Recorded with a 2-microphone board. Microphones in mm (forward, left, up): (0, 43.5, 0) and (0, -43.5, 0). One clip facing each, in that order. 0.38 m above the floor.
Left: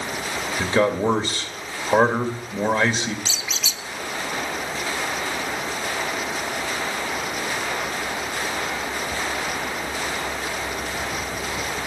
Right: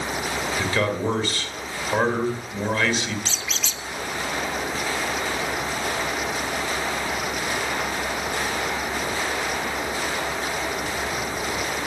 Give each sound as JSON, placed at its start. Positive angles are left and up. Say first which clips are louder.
{"t": 0.6, "sound": "a man speaking", "louder": "left 6 dB", "side_deg": 25, "distance_m": 1.7}
{"t": 3.2, "sound": "a squeak", "louder": "even", "side_deg": 5, "distance_m": 0.8}